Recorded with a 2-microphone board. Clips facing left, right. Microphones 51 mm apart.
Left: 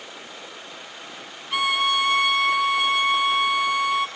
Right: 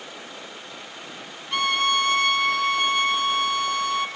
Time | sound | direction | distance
1.5 | a violin | 5° left (ahead or behind) | 0.7 m